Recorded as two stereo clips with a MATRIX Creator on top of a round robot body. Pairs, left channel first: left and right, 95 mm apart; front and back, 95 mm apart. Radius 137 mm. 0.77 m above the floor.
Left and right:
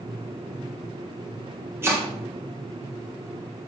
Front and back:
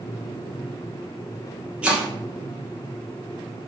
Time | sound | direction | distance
1.8 | chopping | 115° right | 0.8 m